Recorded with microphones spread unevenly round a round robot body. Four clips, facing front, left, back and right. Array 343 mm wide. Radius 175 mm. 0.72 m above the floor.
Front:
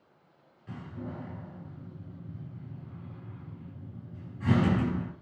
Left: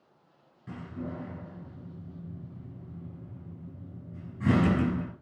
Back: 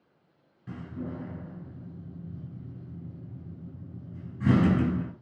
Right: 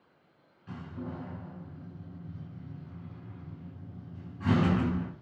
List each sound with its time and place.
0.7 s a door slam: 155° left, 5.5 m